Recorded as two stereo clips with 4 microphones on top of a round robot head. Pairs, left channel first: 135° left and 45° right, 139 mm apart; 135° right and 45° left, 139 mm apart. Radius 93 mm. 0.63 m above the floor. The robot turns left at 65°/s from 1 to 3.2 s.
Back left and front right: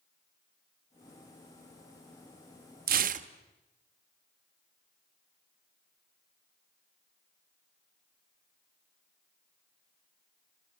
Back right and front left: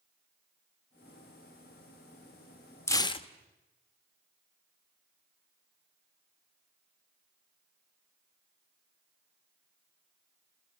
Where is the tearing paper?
60° right, 1.1 m; by 3.3 s 80° right, 1.1 m.